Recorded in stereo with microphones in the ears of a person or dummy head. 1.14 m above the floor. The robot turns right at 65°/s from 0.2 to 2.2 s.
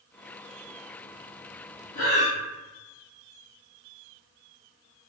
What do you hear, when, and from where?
1.9 s breathing: 45° left (ahead or behind), 0.6 m; by 2.4 s 40° left (ahead or behind), 0.6 m